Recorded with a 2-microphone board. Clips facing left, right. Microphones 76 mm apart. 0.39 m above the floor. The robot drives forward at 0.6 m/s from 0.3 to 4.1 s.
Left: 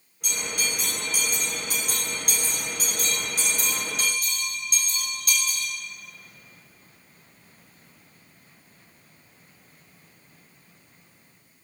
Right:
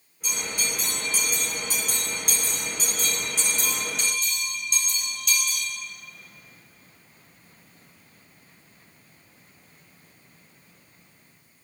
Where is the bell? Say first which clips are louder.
Left 1 dB; 65° left (ahead or behind), 7 m; by 5.7 s 50° left (ahead or behind), 8 m.